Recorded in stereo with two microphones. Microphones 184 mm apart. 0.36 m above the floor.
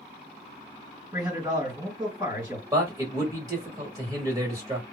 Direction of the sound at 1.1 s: 20° right (ahead or behind).